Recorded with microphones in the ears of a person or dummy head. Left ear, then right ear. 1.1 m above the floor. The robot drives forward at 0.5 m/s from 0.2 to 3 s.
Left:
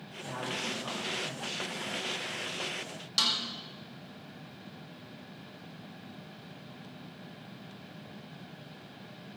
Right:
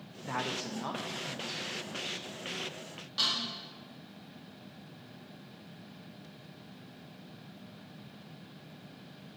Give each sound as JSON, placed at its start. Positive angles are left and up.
{"t": 0.2, "sound": "a woman speaking", "side_deg": -50, "distance_m": 0.7}
{"t": 3.2, "sound": "a snare drum", "side_deg": 75, "distance_m": 2.5}